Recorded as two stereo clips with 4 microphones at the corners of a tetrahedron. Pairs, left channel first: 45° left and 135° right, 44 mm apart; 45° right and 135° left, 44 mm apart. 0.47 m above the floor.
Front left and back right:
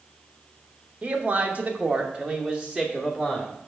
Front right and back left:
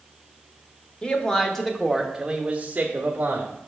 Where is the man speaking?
95° right, 1.0 m; by 3.5 s 140° left, 1.2 m.